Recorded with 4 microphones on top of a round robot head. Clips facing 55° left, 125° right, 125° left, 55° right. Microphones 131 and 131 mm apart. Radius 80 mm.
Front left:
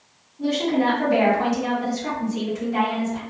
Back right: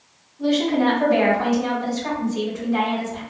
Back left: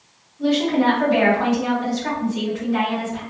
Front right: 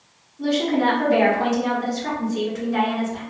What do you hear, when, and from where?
0.4 s a woman speaking: 15° right, 1.8 m